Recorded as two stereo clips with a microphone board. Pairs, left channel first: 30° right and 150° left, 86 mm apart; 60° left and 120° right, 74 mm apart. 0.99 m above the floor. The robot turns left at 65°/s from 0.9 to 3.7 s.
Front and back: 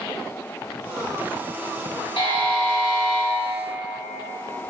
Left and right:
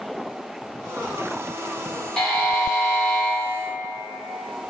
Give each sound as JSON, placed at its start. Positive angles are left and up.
{"t": 2.2, "sound": "a buzzer", "azimuth_deg": -25, "distance_m": 0.9}